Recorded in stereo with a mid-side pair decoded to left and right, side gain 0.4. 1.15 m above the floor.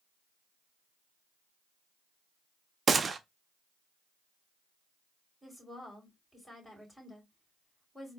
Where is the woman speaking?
5° left, 3 m.